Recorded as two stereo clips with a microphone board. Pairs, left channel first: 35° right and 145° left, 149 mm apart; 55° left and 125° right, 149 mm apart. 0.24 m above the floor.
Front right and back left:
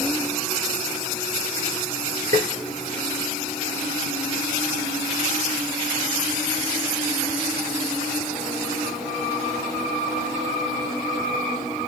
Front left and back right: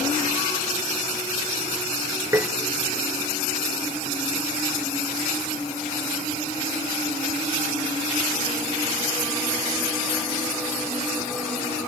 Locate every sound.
2.3 s tapping: 165° left, 2.0 m